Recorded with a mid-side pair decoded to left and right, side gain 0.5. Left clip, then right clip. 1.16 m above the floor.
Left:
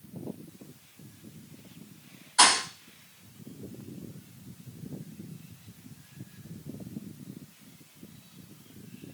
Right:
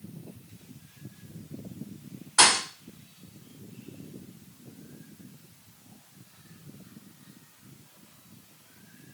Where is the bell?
No bell in this recording.